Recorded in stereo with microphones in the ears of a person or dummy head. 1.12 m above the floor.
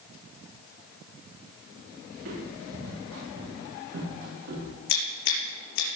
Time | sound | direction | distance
2.1 | footsteps | 80° right | 8 m
4.9 | scissors | 65° left (ahead or behind) | 5 m